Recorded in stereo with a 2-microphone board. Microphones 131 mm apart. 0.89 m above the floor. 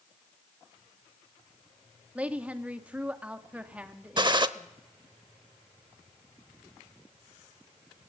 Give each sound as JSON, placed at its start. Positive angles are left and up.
{"t": 2.1, "sound": "a woman speaking", "side_deg": -10, "distance_m": 1.4}
{"t": 4.2, "sound": "a gunshot", "side_deg": -35, "distance_m": 0.7}